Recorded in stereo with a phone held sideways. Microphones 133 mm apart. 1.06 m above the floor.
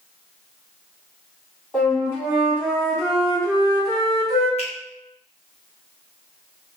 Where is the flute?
15° left (ahead or behind), 1.8 m.